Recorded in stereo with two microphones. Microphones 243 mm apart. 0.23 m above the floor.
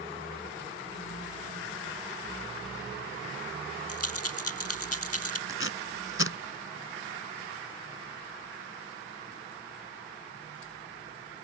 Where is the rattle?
75° left (ahead or behind).